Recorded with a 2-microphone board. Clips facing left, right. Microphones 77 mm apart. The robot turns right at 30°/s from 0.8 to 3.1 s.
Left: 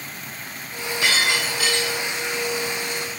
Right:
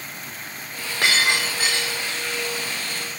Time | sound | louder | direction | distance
1.0 | breaking glass | right 1 dB | 50° right (ahead or behind) | 5 m